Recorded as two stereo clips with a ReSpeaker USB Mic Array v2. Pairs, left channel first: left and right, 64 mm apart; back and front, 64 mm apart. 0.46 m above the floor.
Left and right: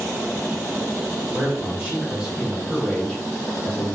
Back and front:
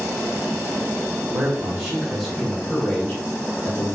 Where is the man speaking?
60° right, 1.2 m; by 4.0 s 150° left, 1.2 m.